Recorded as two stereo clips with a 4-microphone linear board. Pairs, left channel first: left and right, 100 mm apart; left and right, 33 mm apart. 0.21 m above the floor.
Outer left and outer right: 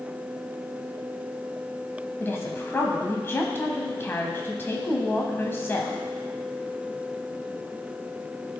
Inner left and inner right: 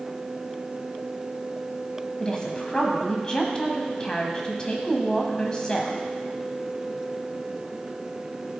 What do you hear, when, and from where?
2.2 s a woman speaking: 25° left (ahead or behind), 1.0 m